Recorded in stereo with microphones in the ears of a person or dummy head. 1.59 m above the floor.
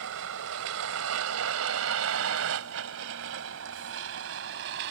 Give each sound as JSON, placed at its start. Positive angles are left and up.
{"t": 0.0, "sound": "a vehicle", "side_deg": -65}